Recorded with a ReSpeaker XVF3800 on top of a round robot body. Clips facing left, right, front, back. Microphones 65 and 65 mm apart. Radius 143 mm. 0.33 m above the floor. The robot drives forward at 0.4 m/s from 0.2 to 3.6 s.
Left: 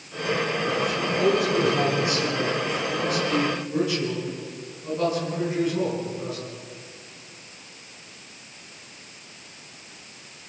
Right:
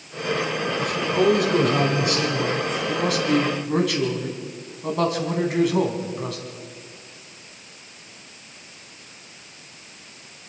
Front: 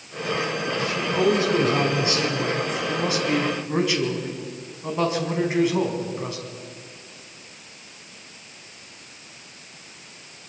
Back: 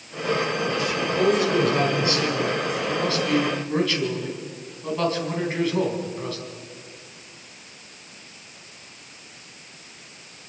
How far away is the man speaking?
About 4.5 m.